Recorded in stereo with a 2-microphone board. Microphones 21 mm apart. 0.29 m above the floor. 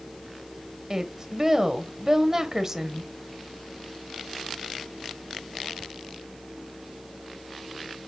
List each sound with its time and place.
0.9 s a woman speaking: 30° right (ahead or behind), 1.0 m